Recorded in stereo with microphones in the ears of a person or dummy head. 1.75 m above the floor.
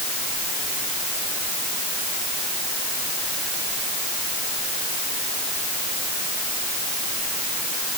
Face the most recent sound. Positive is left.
No sound to turn to.